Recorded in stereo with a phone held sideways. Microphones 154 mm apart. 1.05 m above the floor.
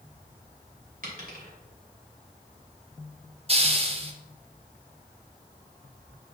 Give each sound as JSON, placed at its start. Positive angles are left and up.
{"t": 1.0, "sound": "a dropped coin", "side_deg": -65, "distance_m": 2.5}
{"t": 3.5, "sound": "a hiss", "side_deg": -40, "distance_m": 0.9}